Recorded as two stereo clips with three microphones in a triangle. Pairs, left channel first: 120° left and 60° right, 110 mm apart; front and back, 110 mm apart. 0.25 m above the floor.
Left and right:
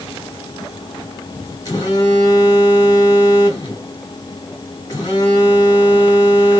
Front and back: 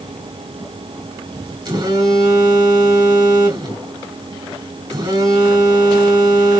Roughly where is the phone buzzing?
Behind.